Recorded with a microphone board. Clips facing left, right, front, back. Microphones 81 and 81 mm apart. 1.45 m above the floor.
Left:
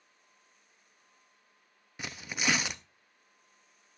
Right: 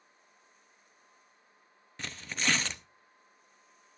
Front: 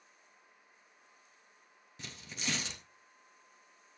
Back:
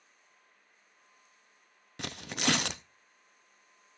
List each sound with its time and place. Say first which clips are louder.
2.0 s tearing paper: left 1 dB, back 10 dB; 170° left, 0.5 m